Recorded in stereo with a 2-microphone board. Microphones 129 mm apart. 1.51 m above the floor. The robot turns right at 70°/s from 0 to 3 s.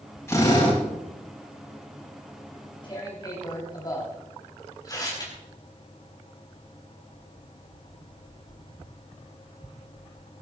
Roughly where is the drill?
Ahead.